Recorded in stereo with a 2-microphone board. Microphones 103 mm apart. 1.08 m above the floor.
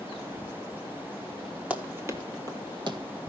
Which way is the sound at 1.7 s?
15° right (ahead or behind).